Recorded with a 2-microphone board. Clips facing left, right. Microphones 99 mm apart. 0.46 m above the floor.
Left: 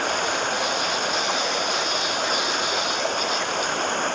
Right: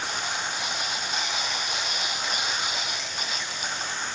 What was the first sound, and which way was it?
Running water, 60° left (ahead or behind).